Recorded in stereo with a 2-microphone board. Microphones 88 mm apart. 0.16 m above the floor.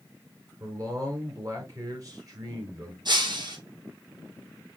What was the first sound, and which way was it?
A man speaking, 45° right (ahead or behind).